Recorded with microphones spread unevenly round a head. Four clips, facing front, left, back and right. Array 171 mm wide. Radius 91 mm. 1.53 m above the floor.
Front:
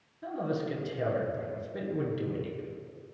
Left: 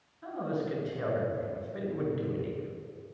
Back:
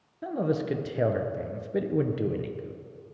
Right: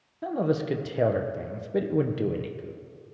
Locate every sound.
0.2 s a man speaking: 130° right, 0.9 m